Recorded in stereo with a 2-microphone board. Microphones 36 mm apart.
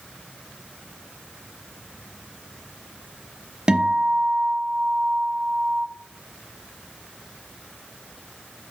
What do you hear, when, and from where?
3.7 s a guitar: 25° right (ahead or behind), 1.0 m